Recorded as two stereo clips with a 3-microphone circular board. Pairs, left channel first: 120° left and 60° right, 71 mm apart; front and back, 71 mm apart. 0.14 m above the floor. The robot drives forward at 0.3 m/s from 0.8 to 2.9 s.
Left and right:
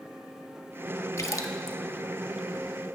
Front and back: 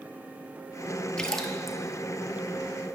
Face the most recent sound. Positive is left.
turn(degrees=125)